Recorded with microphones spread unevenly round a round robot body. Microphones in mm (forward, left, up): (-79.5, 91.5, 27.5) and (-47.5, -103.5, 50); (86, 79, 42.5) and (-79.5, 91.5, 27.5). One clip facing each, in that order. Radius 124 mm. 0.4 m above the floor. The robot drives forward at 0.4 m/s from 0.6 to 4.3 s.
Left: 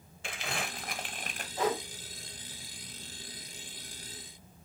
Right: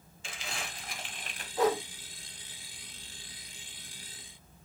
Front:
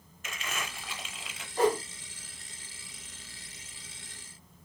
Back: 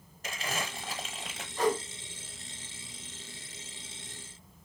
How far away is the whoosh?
About 3.5 m.